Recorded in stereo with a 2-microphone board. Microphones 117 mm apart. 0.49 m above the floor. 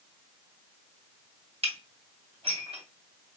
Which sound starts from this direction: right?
Dishes clattering, at 1.6 s.